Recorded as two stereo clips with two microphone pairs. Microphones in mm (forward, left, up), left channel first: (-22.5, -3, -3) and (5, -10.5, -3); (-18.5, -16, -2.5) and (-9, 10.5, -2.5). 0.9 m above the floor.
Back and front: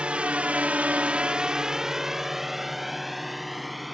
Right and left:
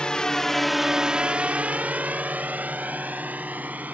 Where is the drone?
60° right; by 3.9 s 75° left.